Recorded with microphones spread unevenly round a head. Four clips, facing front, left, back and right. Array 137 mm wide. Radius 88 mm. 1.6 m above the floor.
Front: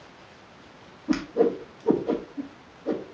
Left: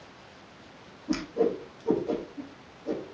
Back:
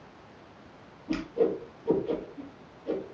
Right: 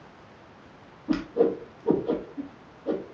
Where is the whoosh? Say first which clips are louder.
Right 3 dB, front 4 dB; 25° right, 2.5 m.